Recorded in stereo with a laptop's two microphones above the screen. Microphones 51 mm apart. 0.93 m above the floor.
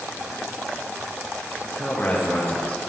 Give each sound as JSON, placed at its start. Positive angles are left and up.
{"t": 1.6, "sound": "a man speaking", "side_deg": 30, "distance_m": 0.8}